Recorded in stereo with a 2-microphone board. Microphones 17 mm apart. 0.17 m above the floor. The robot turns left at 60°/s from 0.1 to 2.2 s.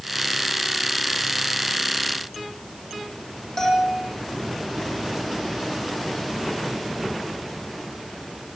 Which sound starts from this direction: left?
A bell, at 3.6 s.